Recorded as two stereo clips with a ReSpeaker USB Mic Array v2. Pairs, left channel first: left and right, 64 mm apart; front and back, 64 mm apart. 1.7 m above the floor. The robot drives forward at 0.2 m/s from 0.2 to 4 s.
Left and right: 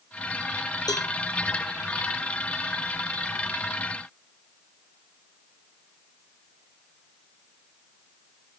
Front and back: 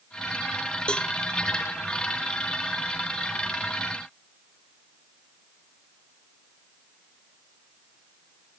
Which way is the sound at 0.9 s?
75° left.